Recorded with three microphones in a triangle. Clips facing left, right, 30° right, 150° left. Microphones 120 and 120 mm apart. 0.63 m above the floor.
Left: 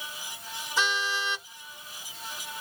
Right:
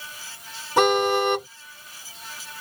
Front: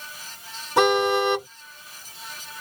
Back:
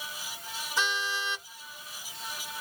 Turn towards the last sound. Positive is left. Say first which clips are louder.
# right 12 dB, front 14 dB
turn(degrees=-55)